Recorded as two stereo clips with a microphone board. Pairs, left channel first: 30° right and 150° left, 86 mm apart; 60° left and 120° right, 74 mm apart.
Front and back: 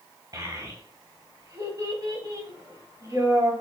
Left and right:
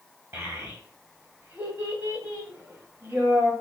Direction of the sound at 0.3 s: 175° right.